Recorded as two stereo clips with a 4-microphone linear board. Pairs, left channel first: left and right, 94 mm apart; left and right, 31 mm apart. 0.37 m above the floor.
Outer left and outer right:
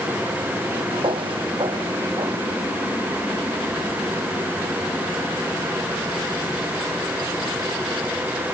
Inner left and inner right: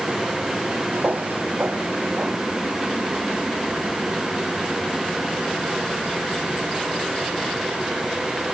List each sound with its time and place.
0.9 s footsteps: 70° right (ahead or behind); by 2.5 s 65° right (ahead or behind)